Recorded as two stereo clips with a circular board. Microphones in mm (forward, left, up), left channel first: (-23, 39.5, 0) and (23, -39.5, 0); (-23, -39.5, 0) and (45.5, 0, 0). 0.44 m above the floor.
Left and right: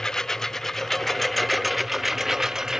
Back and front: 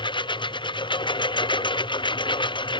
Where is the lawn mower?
155° right; by 2.8 s 145° right.